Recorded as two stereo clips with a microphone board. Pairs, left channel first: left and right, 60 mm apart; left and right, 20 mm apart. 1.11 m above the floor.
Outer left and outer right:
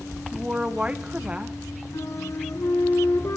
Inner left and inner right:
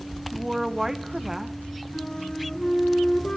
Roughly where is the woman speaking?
Right.